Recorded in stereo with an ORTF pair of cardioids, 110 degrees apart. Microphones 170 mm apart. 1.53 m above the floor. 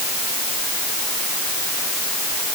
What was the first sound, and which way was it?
Only background noise.